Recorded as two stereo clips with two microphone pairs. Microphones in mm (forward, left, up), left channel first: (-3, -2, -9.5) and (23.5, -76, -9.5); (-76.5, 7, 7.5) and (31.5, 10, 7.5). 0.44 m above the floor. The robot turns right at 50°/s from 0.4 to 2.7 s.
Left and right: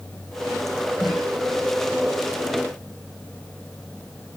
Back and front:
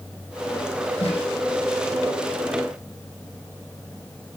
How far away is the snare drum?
About 9 m.